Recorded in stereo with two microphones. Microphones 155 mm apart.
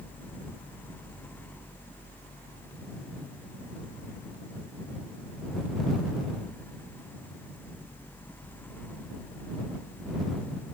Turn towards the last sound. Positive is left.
No sound to turn to.